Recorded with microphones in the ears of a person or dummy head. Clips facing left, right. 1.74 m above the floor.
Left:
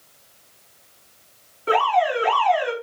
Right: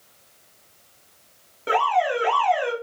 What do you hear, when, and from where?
1.7 s an alarm: 65° right (ahead or behind), 1.7 m